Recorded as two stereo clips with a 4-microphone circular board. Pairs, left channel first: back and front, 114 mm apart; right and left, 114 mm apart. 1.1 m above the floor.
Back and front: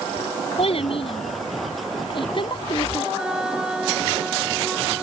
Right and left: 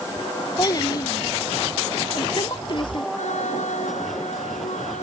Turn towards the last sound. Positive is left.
turn(degrees=-85)